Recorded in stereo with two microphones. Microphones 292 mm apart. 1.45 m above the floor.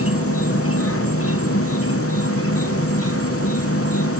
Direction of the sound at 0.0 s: 50° left (ahead or behind).